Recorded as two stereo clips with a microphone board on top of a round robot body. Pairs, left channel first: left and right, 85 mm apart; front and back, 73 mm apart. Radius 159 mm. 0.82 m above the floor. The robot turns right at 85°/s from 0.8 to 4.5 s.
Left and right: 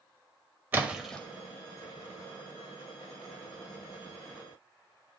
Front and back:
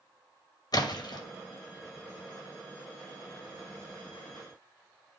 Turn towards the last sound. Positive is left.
turn(degrees=-70)